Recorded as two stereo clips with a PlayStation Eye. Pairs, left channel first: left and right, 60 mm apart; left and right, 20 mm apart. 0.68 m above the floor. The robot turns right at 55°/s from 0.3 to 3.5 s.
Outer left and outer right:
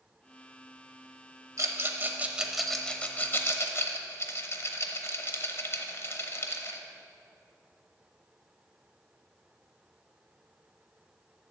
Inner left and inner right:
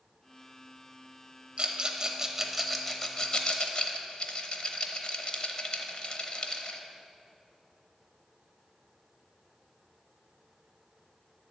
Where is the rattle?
55° right (ahead or behind), 0.8 m; by 6.8 s 45° left (ahead or behind), 0.8 m.